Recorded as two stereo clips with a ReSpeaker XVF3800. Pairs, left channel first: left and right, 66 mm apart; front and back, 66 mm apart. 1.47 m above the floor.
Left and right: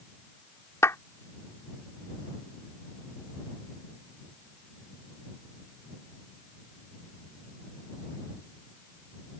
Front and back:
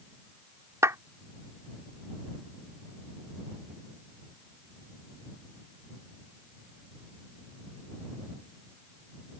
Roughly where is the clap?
Behind left.